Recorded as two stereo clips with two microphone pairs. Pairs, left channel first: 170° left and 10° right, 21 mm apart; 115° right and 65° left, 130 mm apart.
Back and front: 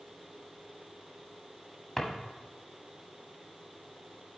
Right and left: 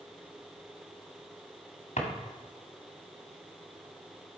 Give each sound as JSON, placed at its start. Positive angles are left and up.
{"t": 2.0, "sound": "a drawer", "azimuth_deg": -115, "distance_m": 1.7}